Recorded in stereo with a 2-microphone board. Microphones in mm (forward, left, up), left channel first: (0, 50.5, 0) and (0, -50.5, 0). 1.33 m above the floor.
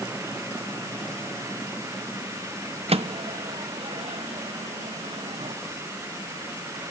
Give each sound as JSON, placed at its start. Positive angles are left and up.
{"t": 2.9, "sound": "a microwave", "side_deg": -75, "distance_m": 0.7}